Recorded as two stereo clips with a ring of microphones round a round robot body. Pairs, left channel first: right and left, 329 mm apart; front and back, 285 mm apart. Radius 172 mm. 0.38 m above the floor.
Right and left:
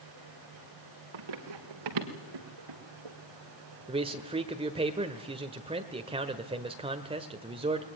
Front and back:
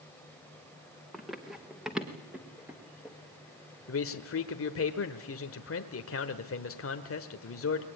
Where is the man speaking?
20° left, 1.3 m.